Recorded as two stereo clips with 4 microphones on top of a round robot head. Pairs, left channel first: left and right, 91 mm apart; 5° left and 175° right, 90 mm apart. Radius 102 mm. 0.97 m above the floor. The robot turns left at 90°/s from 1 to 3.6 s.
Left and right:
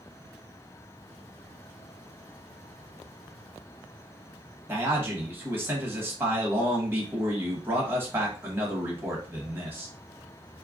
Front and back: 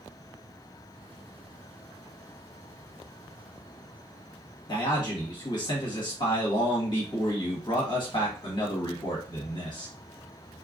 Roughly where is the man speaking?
Ahead right.